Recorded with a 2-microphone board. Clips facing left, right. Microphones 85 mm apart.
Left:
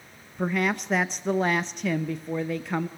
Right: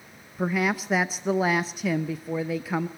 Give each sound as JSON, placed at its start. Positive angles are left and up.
{"t": 0.4, "sound": "a woman speaking", "side_deg": -5, "distance_m": 0.6}